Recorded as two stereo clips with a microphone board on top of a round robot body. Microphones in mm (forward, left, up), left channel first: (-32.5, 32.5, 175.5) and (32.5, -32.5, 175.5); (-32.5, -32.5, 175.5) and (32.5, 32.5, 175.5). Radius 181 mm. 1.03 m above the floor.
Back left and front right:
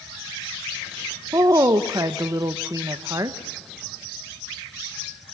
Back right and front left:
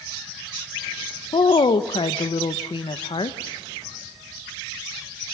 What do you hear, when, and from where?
1.3 s a woman speaking: 100° right, 0.8 m